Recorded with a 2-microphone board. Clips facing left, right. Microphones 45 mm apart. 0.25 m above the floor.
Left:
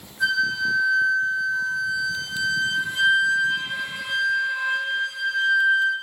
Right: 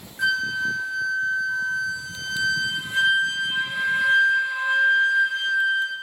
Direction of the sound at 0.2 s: 55° right (ahead or behind).